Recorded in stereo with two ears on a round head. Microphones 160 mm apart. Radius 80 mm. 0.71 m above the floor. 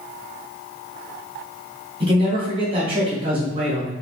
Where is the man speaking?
30° right (ahead or behind), 1.1 m.